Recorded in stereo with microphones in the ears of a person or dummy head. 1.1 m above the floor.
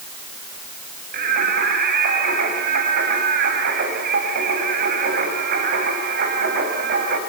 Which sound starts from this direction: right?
Singing, at 1.1 s.